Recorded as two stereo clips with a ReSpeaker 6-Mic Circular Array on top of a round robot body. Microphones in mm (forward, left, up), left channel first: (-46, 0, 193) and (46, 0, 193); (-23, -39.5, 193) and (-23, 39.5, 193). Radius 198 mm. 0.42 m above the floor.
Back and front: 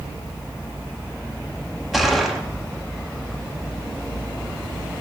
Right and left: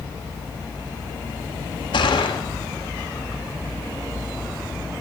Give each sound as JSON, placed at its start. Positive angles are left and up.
{"t": 1.9, "sound": "a gunshot", "azimuth_deg": -85, "distance_m": 1.6}